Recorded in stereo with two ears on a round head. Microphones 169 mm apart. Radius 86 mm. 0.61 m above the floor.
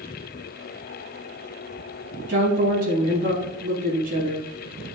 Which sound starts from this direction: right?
A woman speaking, at 2.3 s.